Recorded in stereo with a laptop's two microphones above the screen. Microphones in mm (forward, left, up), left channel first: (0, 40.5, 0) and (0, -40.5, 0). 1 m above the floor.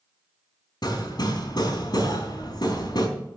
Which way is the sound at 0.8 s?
60° left (ahead or behind).